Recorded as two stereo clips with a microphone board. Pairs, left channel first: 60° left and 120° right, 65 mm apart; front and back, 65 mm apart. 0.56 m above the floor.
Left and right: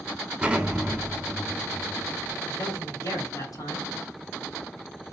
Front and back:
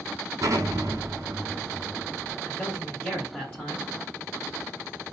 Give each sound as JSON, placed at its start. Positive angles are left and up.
{"t": 0.4, "sound": "an explosion", "azimuth_deg": 165, "distance_m": 2.5}
{"t": 2.5, "sound": "a man speaking", "azimuth_deg": 70, "distance_m": 4.0}